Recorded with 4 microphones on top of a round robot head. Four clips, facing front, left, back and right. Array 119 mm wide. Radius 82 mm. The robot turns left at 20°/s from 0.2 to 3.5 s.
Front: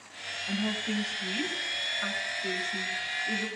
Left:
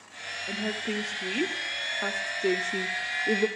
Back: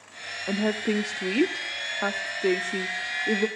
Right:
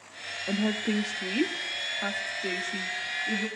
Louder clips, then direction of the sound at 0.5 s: Right 4 dB, back 7 dB; 160° right.